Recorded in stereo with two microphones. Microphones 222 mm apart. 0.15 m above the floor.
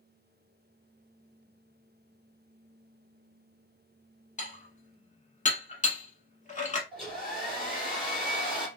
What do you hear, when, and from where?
4.4 s dishes clattering: 35° left (ahead or behind), 0.8 m
6.9 s a hair dryer: centre (ahead or behind), 2.5 m